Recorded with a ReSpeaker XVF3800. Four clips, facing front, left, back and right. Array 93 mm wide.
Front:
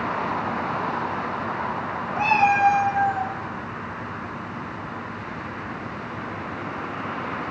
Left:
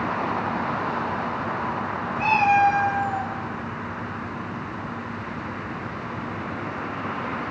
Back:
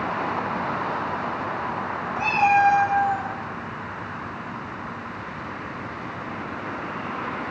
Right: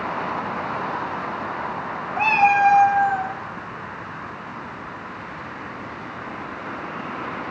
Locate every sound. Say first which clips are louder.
2.2 s a cat meowing: right 2 dB, even; 65° right, 3 m; by 3.3 s 95° right, 1.9 m